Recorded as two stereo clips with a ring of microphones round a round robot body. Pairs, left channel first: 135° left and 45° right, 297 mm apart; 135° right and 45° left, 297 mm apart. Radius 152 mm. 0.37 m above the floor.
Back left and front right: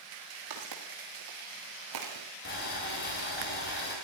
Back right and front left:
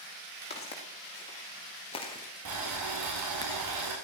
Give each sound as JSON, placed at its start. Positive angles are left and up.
{"t": 0.5, "sound": "footsteps", "azimuth_deg": -65, "distance_m": 5.0}
{"t": 2.5, "sound": "boiling", "azimuth_deg": 80, "distance_m": 8.0}